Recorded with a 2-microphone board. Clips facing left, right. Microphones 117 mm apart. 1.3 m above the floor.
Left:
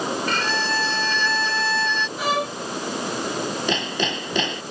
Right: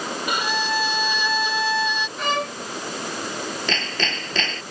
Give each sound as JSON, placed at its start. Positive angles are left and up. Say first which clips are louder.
{"t": 0.3, "sound": "a violin", "louder": "even", "side_deg": -15}
{"t": 2.2, "sound": "a violin", "louder": "left 1 dB", "side_deg": 5}
{"t": 3.7, "sound": "hammering", "louder": "left 3 dB", "side_deg": 15}